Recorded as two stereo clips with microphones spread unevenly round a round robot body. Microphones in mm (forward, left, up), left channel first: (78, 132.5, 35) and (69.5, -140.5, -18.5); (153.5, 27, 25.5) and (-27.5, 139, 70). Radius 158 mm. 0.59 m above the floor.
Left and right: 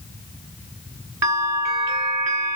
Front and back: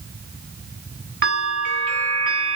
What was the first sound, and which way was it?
A bell, 160° right.